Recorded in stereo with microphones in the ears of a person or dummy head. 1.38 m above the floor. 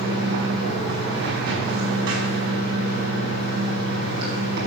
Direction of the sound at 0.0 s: 80° right.